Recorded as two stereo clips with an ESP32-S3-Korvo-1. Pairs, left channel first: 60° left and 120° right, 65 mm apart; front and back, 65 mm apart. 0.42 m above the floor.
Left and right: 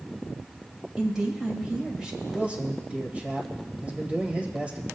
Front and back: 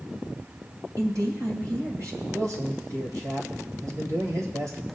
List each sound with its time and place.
1.0 s a woman speaking: 160° left, 1.9 m
2.3 s a man speaking: 175° left, 1.7 m